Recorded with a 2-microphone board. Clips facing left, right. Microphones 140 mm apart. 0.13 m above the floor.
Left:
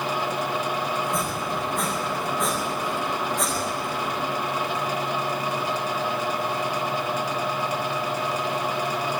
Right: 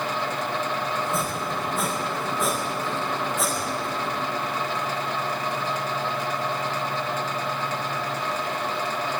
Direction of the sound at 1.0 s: 5° right (ahead or behind).